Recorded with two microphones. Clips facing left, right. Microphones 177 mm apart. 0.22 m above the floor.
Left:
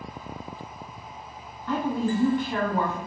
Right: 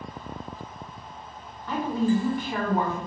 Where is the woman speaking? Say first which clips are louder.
Right 2 dB; 15° right (ahead or behind), 1.5 m.